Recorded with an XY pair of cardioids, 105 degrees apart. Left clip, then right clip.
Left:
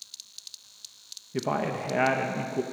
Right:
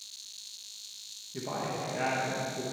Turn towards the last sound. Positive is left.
turn(degrees=60)